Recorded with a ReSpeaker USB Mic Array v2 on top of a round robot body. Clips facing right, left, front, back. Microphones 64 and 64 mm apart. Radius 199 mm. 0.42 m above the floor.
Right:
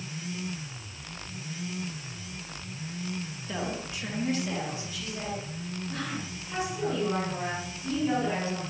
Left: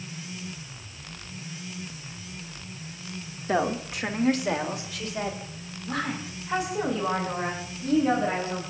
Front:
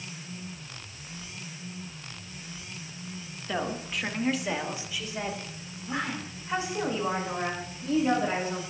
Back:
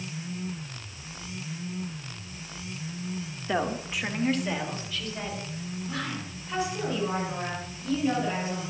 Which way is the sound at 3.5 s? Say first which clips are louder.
Left 9 dB, back 3 dB; 110° left.